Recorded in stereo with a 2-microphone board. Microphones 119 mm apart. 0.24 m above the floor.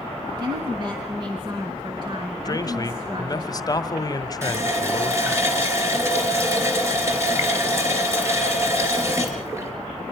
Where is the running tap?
25° right (ahead or behind), 3 m.